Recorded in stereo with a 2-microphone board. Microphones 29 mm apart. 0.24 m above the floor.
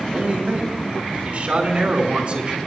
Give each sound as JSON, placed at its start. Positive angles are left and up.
{"t": 0.1, "sound": "a man speaking", "side_deg": -60, "distance_m": 4.0}